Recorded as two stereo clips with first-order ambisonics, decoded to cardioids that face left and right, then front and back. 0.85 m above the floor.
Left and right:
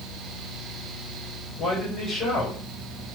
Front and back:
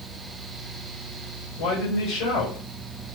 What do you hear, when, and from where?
1.6 s a man speaking: 20° left, 3 m